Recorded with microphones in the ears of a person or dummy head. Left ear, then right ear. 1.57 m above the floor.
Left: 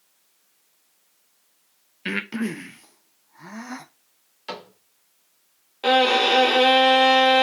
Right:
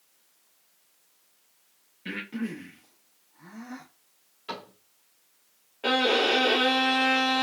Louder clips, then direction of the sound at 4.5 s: Left 3 dB; 40° left (ahead or behind).